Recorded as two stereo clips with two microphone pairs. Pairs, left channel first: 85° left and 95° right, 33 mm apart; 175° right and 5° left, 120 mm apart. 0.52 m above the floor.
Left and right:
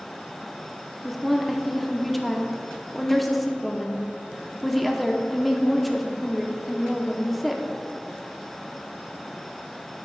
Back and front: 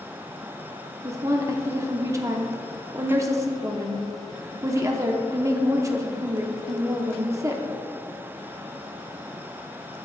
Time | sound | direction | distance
1.0 | a woman speaking | 5° right | 0.8 m